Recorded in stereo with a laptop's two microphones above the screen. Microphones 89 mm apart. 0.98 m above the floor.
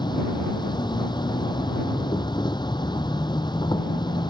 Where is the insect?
55° left (ahead or behind).